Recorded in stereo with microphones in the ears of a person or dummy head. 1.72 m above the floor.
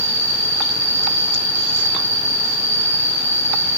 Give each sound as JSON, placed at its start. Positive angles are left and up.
{"t": 0.0, "sound": "an insect", "side_deg": -30, "distance_m": 2.5}